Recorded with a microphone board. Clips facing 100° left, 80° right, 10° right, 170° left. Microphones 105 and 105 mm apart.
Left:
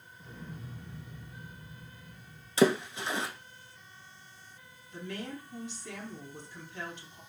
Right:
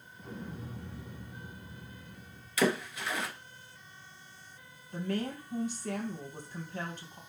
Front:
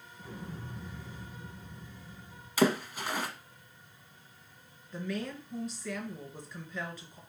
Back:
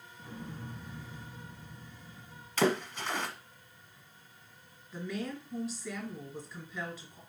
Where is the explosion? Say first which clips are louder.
Right 4 dB, even; 90° right, 1.6 m.